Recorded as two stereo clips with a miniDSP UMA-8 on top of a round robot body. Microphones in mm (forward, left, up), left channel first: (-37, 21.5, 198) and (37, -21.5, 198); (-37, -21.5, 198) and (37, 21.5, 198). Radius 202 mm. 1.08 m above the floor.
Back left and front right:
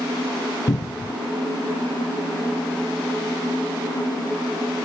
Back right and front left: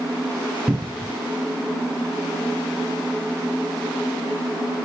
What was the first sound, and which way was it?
A cupboard door, 100° left.